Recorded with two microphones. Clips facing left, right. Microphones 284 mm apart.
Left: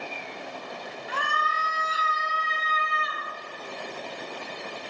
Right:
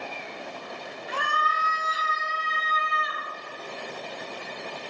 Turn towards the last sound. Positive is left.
turn(degrees=45)  # may be behind; listen again after turning